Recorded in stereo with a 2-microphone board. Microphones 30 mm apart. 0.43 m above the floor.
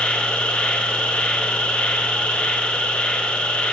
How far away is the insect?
About 2.5 m.